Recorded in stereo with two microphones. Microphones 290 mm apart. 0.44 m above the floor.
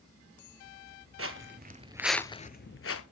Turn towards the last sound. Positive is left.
turn(degrees=50)  # may be behind; listen again after turning